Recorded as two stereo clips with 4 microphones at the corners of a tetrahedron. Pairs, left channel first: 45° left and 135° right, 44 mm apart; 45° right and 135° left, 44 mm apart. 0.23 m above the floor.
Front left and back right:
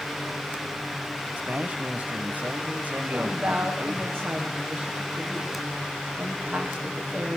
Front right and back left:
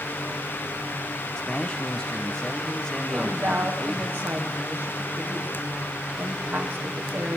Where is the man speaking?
115° right, 1.3 m.